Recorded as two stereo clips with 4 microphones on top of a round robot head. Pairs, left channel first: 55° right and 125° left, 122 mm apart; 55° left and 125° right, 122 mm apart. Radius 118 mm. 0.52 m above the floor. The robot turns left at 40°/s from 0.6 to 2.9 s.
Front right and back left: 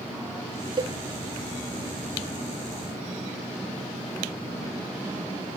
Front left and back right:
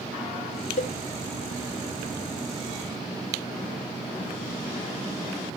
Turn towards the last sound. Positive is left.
turn(degrees=-15)